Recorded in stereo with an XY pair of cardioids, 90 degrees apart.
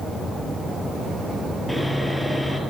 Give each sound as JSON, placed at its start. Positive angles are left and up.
{"t": 1.7, "sound": "sawing", "azimuth_deg": 0, "distance_m": 3.5}